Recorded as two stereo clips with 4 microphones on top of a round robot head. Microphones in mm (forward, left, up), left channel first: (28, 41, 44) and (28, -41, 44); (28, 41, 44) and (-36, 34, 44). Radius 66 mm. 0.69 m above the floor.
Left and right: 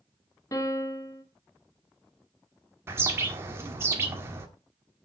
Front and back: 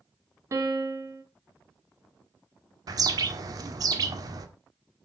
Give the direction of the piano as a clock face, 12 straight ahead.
7 o'clock.